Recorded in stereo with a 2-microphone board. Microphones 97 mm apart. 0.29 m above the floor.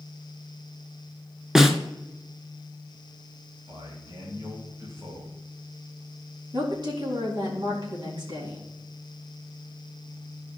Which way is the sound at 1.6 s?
5° right (ahead or behind).